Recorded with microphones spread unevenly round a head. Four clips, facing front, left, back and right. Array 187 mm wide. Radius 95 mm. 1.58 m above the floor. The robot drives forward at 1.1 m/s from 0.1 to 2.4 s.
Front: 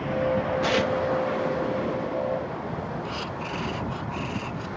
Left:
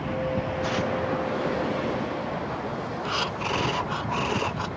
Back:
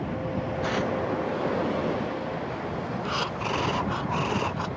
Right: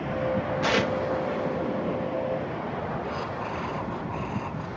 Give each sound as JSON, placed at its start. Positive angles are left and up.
{"t": 0.6, "sound": "tearing paper", "azimuth_deg": -65}
{"t": 3.0, "sound": "breathing", "azimuth_deg": 110}